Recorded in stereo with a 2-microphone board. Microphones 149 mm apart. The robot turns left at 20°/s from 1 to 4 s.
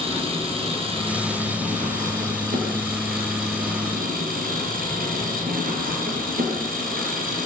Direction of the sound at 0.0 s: 40° right.